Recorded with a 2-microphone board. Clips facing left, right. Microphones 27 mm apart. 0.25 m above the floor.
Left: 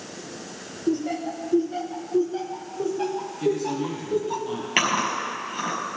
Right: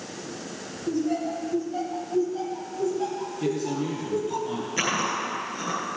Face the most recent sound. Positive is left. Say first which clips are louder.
# left 4 dB
turn(degrees=70)  # may be behind; listen again after turning